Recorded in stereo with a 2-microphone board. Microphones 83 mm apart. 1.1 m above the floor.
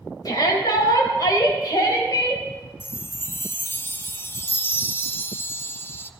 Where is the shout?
50° left (ahead or behind), 4.5 m.